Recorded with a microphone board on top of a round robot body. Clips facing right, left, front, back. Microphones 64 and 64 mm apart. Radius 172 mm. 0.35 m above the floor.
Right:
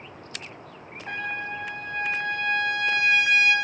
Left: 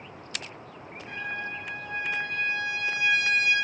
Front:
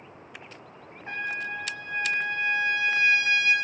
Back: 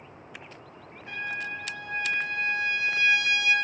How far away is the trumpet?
About 0.7 m.